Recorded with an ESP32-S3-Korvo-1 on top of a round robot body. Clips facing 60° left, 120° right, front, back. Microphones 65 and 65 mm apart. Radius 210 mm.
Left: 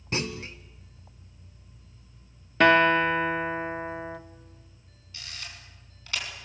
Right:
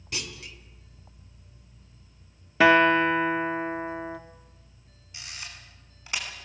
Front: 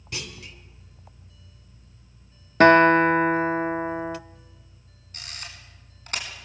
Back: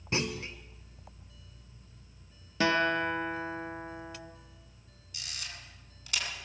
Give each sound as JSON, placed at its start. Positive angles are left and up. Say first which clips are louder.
{"t": 0.1, "sound": "a clunk", "louder": "left 7 dB, back 5 dB", "azimuth_deg": 115, "distance_m": 0.5}
{"t": 2.6, "sound": "a guitar", "louder": "right 1 dB, front 13 dB", "azimuth_deg": -35, "distance_m": 1.0}
{"t": 5.1, "sound": "a camera shutter", "louder": "right 1 dB, front 3 dB", "azimuth_deg": -50, "distance_m": 4.0}